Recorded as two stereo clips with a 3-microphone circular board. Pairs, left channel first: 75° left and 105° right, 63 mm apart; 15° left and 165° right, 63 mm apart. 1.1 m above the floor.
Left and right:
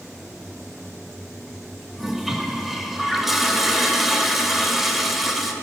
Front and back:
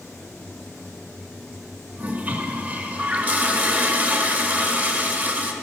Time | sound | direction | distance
2.0 | a toilet flushing | 175° left | 0.9 m